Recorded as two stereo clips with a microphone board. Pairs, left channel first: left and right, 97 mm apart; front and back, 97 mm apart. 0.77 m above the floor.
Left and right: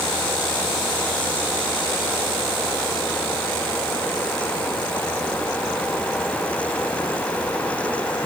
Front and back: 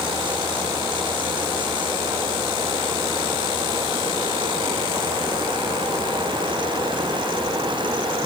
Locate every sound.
Only background noise.